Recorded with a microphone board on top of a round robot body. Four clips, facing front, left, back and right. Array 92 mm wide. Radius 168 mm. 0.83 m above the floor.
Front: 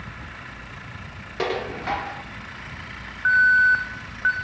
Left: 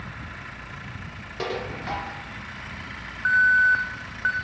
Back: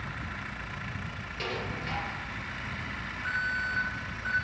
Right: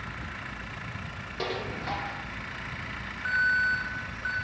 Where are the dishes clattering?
5° left, 1.7 m.